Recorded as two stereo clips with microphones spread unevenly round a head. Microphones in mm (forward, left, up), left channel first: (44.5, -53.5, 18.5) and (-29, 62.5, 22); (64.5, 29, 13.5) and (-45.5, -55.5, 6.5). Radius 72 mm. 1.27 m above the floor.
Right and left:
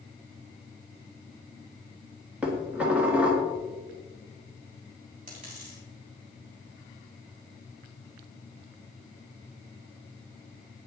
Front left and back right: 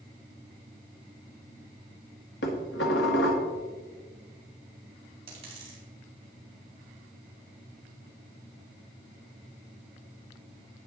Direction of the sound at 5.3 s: 165° left.